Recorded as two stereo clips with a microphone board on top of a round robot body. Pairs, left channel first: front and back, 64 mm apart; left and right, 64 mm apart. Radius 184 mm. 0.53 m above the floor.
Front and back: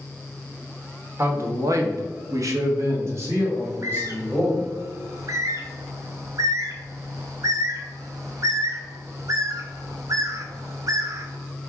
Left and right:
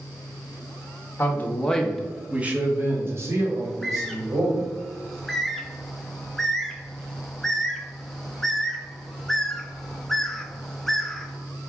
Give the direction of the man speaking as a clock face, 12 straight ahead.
7 o'clock.